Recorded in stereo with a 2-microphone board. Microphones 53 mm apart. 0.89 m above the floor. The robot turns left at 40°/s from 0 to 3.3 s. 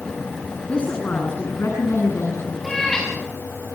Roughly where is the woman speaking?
Behind.